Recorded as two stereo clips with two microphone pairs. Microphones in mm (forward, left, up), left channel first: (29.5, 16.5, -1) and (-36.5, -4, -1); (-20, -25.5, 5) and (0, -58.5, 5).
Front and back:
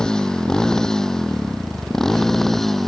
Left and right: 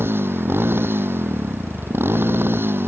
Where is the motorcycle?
60° right; by 2.9 s 65° right.